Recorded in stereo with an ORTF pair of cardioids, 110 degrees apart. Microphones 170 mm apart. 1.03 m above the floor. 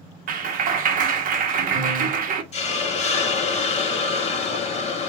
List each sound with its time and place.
0.3 s a clap: 55° right, 1.1 m
2.5 s a hiss: 40° left, 1.2 m